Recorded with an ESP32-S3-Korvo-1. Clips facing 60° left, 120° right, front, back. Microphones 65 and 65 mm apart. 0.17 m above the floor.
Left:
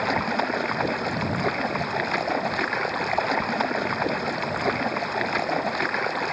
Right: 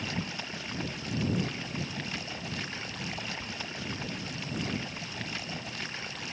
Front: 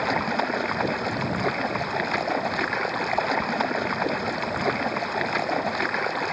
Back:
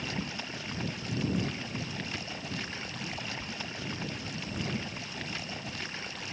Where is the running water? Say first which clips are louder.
Left 13 dB, front 13 dB; 30° left.